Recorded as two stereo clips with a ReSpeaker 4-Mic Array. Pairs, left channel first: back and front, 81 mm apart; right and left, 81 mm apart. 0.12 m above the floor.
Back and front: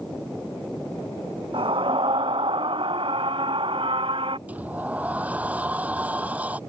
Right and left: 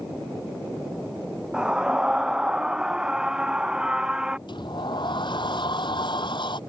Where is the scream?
10° left.